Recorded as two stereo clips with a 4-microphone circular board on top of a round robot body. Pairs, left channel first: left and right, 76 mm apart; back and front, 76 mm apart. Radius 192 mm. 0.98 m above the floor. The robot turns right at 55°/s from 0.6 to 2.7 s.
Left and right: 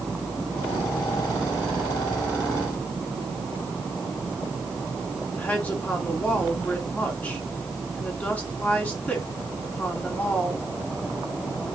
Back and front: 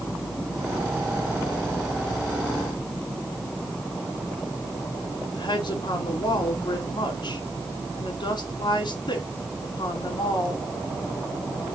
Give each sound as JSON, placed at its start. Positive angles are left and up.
{"t": 5.3, "sound": "a woman speaking", "azimuth_deg": 160, "distance_m": 3.5}